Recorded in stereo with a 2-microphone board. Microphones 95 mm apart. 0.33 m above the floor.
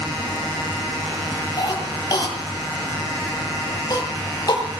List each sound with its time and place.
1.6 s a cough: 45° left (ahead or behind), 8 m